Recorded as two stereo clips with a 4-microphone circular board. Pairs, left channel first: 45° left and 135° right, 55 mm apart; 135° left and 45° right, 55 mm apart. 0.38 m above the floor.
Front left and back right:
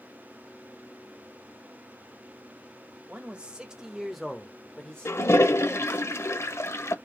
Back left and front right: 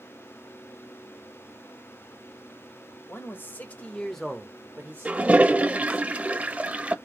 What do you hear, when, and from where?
3.1 s a man speaking: 165° left, 1.3 m; by 6.0 s 20° right, 1.6 m
5.0 s a toilet flushing: 15° left, 0.5 m